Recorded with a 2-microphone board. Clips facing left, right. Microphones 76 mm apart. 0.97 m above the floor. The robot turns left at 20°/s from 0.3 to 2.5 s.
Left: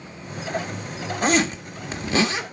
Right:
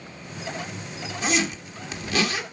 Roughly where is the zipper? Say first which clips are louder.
Left 5 dB; left.